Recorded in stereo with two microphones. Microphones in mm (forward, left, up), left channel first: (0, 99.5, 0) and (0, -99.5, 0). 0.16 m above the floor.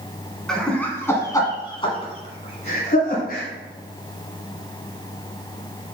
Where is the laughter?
5° left (ahead or behind), 1.9 m; by 3.5 s 45° left (ahead or behind), 2.5 m.